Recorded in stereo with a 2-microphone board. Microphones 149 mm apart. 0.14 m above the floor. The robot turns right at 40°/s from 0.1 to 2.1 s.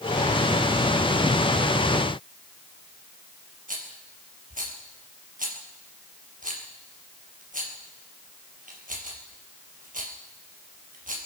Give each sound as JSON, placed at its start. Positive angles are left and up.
{"t": 3.7, "sound": "a rattle", "side_deg": -65, "distance_m": 3.5}